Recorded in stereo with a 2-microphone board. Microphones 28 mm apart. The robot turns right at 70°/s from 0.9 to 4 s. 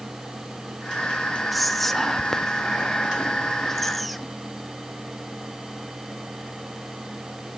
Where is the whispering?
Centre (ahead or behind), 0.7 m; by 4.3 s 5° left (ahead or behind), 0.7 m.